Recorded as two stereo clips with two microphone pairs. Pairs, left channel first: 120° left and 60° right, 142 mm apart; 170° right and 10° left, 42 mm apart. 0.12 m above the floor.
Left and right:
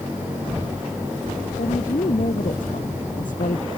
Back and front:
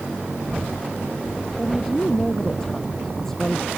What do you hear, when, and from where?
1.6 s a woman speaking: 110° left